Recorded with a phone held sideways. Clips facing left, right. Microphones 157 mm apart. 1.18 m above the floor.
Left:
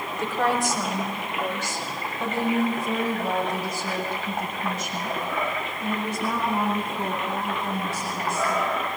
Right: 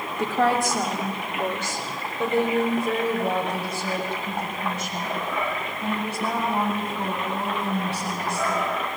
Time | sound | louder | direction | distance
0.2 | a woman speaking | right 3 dB | 55° right (ahead or behind) | 3 m